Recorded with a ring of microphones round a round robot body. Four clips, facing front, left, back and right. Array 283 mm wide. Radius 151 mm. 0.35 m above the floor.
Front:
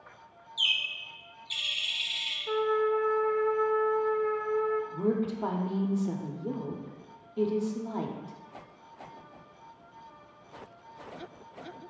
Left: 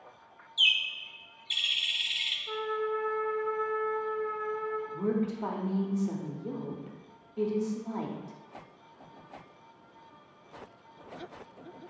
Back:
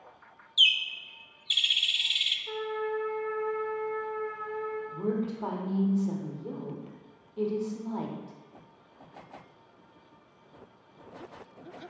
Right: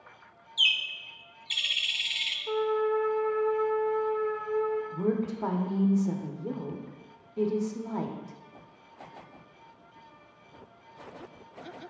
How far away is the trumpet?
About 0.7 m.